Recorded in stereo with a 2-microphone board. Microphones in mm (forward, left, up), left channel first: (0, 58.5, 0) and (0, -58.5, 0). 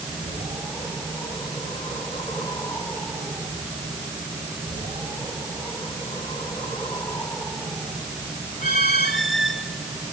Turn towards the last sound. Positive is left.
No sound to turn to.